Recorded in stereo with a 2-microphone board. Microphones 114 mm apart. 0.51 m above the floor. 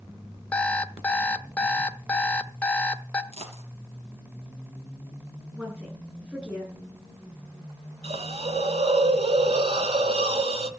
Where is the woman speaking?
10° right (ahead or behind), 8 m.